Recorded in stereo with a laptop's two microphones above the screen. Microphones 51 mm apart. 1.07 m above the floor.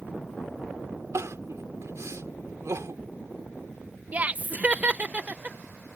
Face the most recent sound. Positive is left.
turn(degrees=-30)  # may be behind; listen again after turning